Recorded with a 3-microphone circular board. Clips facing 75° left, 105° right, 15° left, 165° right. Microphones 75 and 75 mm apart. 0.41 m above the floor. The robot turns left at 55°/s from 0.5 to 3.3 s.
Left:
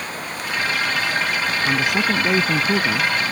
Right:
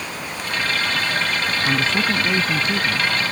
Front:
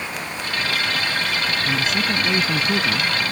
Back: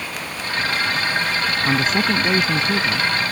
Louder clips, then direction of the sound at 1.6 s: Left 1 dB, back 6 dB; 165° left.